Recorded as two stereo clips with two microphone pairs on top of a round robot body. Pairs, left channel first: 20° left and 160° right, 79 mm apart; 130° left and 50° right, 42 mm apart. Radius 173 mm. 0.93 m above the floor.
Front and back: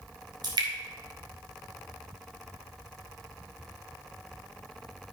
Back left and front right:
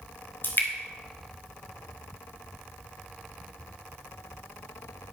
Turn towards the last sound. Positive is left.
turn(degrees=170)